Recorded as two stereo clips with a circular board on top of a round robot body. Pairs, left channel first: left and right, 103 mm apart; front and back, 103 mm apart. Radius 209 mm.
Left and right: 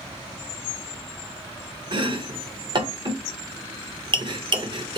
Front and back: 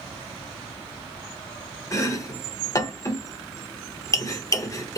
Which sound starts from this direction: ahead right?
Chopping, at 1.9 s.